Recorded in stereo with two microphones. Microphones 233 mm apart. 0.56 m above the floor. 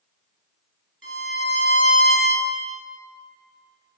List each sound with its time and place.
1.0 s a violin: 65° right (ahead or behind), 2.5 m